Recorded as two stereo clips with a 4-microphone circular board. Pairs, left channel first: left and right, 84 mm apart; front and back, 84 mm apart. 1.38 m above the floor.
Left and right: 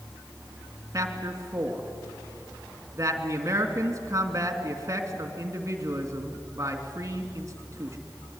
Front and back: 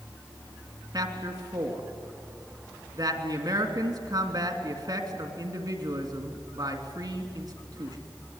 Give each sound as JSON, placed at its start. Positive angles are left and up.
{"t": 0.9, "sound": "a man speaking", "azimuth_deg": -145, "distance_m": 3.0}